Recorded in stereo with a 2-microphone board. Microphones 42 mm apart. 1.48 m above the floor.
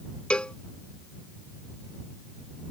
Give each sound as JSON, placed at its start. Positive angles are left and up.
{"t": 0.3, "sound": "a cowbell", "side_deg": 25}